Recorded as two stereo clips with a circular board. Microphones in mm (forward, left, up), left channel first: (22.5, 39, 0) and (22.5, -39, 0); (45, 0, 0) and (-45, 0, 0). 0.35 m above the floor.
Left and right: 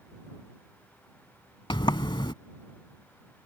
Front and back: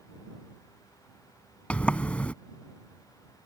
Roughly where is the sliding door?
Left.